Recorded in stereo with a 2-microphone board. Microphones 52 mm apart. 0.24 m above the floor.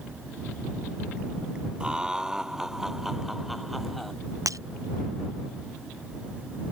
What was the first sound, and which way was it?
Laughter, 15° right (ahead or behind).